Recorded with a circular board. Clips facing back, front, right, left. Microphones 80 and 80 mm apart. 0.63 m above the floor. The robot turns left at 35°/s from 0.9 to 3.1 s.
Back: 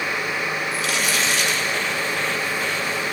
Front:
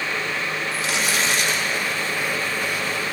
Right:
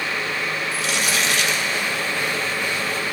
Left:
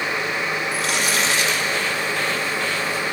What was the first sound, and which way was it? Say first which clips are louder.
Crumpling: front 1 dB, even; 60° left.